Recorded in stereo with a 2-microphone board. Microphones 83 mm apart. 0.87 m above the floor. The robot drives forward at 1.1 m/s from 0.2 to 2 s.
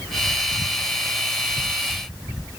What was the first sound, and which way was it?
Only background noise.